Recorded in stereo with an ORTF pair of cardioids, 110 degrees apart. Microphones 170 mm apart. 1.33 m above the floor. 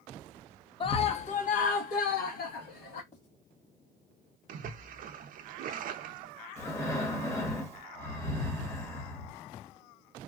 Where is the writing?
40° left, 2.0 m.